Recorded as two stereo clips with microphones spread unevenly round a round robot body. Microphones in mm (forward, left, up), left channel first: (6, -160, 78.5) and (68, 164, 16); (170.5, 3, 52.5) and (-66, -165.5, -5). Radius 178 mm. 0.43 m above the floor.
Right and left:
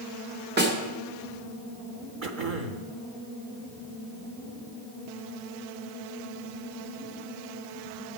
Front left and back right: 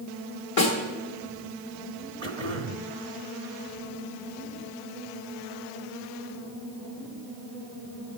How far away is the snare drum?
About 2 m.